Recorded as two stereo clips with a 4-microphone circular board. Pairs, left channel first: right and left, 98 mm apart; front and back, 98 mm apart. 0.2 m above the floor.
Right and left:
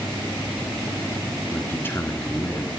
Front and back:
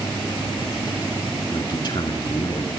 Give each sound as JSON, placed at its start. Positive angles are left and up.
{"t": 1.5, "sound": "a man speaking", "azimuth_deg": -25, "distance_m": 2.5}